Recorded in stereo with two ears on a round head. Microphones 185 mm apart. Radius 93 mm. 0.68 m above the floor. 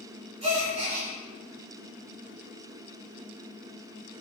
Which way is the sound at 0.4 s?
35° right (ahead or behind).